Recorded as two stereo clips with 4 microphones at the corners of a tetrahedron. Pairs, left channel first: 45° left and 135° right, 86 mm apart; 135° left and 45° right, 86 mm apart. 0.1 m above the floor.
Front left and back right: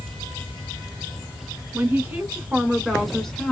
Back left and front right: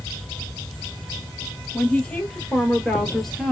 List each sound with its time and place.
1.7 s a woman speaking: 165° right, 1.6 m; by 3.5 s 55° left, 1.4 m